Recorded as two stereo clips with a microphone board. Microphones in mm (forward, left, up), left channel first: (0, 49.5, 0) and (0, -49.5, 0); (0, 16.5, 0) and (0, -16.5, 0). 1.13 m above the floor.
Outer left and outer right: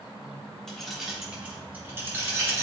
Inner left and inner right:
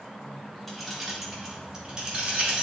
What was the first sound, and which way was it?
Keys jangling, 5° left (ahead or behind).